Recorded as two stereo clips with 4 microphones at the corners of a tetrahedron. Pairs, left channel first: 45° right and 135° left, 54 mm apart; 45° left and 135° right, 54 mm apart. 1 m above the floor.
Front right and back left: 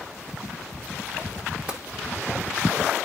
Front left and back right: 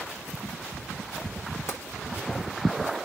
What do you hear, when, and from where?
1.7 s tapping: 70° left, 1.4 m